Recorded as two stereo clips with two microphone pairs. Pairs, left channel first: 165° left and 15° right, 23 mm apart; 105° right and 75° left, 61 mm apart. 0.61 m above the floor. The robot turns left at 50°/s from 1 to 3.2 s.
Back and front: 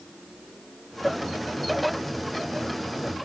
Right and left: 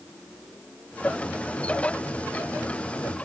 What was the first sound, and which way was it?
Only background noise.